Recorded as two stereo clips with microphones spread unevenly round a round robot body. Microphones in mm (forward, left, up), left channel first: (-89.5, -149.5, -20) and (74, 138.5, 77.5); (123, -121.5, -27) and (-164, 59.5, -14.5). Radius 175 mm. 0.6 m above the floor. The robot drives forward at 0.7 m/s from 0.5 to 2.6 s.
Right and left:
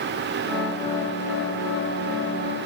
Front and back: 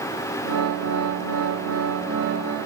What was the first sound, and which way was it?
Only background noise.